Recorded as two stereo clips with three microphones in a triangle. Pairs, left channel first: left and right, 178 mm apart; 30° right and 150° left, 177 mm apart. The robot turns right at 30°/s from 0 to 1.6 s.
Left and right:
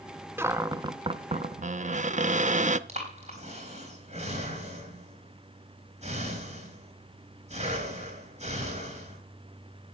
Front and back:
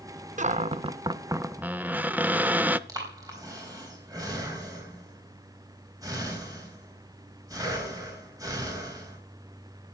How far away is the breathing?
About 4 m.